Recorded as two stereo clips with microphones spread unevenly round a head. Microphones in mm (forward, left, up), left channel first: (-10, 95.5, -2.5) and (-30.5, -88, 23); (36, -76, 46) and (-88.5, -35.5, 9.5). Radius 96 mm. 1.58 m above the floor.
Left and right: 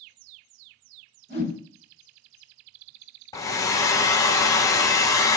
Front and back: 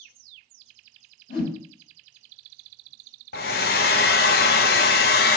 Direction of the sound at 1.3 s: 25° left.